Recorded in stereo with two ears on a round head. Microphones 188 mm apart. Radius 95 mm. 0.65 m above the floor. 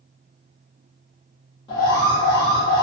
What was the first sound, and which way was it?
An alarm, 20° left (ahead or behind).